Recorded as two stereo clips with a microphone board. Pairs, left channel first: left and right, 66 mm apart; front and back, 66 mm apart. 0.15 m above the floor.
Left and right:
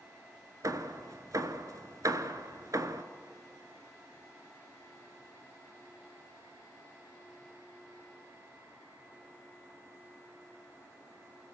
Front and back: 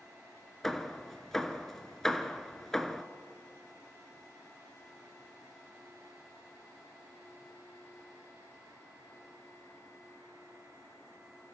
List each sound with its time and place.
0.6 s hammering: 85° right, 1.0 m